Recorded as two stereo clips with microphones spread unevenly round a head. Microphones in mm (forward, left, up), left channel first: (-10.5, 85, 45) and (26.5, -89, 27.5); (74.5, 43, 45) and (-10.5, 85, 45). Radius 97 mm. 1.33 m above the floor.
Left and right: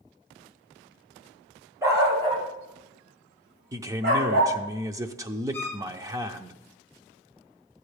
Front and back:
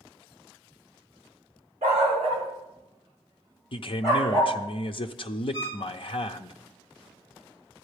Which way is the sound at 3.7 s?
10° right.